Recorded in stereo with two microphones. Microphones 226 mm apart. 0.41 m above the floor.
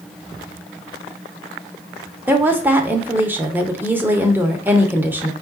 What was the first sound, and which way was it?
A woman speaking, 10° right (ahead or behind).